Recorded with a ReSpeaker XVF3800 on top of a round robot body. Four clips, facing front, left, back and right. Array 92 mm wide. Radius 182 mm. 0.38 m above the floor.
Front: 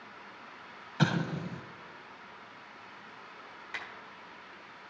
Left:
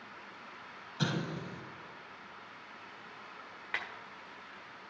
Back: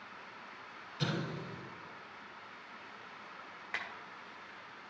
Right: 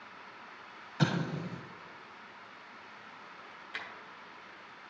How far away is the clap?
About 2.0 m.